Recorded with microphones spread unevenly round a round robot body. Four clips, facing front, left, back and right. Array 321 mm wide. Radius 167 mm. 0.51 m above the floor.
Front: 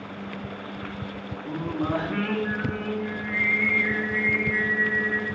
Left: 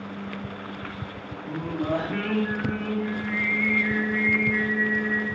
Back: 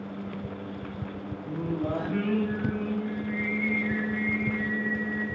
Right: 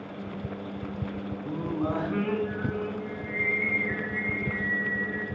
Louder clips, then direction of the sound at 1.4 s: Left 2 dB, front 2 dB; 10° left.